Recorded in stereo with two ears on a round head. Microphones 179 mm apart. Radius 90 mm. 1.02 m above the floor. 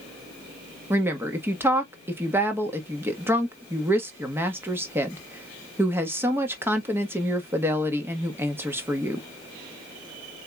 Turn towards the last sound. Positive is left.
turn(degrees=-10)  # may be behind; listen again after turning